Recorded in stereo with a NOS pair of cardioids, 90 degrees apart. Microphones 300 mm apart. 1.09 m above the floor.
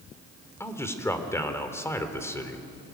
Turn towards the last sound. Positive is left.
turn(degrees=10)